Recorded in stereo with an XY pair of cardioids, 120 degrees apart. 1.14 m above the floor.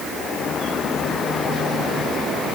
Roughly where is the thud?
No thud in this recording.